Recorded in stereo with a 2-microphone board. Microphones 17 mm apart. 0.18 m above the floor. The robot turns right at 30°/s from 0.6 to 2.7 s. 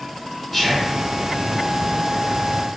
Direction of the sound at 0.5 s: 20° left (ahead or behind).